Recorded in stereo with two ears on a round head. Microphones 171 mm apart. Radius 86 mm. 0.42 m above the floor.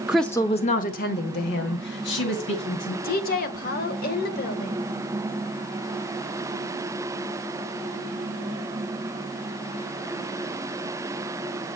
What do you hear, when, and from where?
0.1 s a woman speaking: 5° right (ahead or behind), 0.7 m; by 2.9 s 70° left (ahead or behind), 3 m
3.0 s a woman speaking: 50° left (ahead or behind), 1.3 m